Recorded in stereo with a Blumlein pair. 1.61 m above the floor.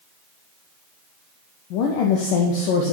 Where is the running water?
I don't hear running water.